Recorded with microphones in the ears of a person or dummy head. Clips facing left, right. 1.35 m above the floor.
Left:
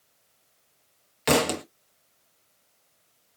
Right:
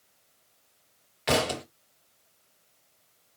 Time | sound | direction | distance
1.3 | a thud | 45° left (ahead or behind) | 1.0 m